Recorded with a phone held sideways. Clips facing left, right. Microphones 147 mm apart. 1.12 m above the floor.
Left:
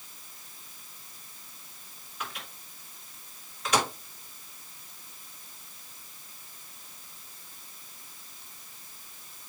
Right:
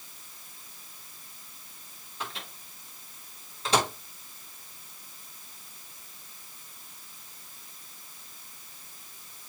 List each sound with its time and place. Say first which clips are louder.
2.2 s a microwave: right 1 dB; 30° right (ahead or behind), 4 m